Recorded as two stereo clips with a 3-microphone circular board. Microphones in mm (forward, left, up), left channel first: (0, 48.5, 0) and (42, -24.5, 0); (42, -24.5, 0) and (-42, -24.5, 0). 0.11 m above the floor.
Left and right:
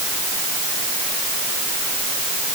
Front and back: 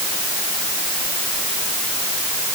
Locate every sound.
Only background noise.